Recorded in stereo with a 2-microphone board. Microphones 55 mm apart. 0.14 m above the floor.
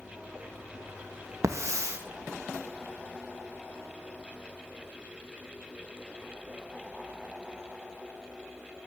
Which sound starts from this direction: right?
A hiss, at 1.4 s.